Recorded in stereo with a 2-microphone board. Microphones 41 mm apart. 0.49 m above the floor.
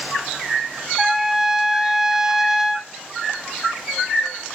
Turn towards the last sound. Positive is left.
turn(degrees=-10)  # may be behind; listen again after turning